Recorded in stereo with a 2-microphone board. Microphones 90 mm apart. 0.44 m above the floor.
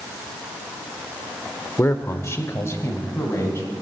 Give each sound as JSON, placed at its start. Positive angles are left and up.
{"t": 1.8, "sound": "a man speaking", "side_deg": 25, "distance_m": 0.9}